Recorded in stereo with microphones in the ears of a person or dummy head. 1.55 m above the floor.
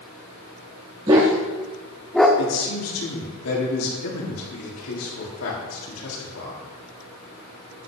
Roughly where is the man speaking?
Left.